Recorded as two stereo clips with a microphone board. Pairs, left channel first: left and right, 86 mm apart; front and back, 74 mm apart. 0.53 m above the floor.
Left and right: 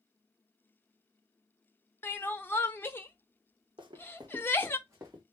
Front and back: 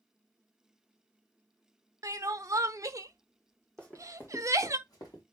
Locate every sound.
2.0 s crying: 150° left, 0.5 m
3.8 s running footsteps: 80° right, 1.6 m; by 5.2 s 25° right, 2.5 m